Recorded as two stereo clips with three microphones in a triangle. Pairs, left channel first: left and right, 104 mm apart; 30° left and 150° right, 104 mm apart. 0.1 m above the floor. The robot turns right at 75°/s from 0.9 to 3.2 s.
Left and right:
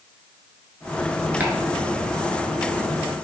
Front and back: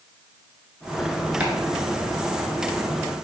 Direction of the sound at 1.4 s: 100° right.